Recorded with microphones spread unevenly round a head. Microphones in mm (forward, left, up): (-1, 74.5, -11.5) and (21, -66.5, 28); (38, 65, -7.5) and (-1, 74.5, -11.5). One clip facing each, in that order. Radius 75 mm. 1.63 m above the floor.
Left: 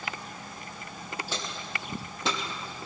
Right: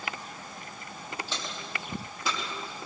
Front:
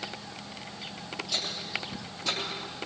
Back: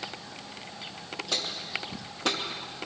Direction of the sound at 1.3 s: 170° right.